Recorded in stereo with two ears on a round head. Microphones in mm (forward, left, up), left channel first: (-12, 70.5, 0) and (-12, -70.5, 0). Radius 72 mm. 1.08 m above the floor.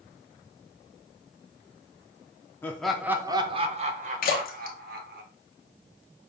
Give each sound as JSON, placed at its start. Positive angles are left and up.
{"t": 2.6, "sound": "laughter", "side_deg": 15, "distance_m": 0.5}
{"t": 4.2, "sound": "a splash", "side_deg": 60, "distance_m": 0.9}